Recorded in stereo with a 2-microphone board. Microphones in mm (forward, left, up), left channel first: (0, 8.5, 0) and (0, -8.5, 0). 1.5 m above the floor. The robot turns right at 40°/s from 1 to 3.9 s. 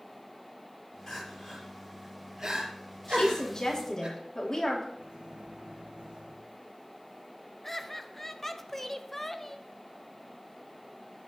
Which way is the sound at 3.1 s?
120° left.